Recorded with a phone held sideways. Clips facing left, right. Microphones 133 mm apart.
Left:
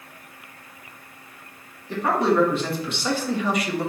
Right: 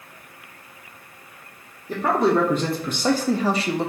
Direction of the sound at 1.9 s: 45° right (ahead or behind).